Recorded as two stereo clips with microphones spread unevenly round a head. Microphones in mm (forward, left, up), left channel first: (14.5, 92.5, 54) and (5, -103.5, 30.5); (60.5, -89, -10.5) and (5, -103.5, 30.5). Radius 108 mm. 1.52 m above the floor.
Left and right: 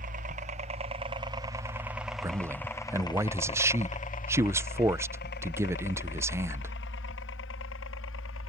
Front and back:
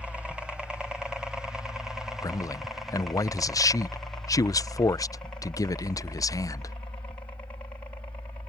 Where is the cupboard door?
No cupboard door in this recording.